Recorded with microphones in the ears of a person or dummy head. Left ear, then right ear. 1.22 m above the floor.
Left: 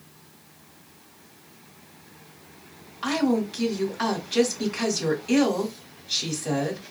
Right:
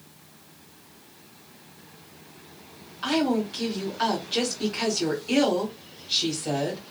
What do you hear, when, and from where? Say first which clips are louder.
3.0 s a woman speaking: even; 15° left (ahead or behind), 1.5 m